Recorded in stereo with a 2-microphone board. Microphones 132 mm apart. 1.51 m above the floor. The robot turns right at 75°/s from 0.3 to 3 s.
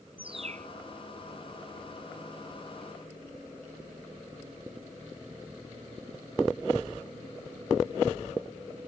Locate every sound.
0.2 s a bird: 40° right (ahead or behind); by 0.7 s 70° right (ahead or behind)